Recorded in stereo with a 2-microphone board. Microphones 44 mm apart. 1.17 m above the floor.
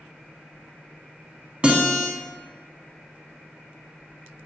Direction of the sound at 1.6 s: 30° right (ahead or behind).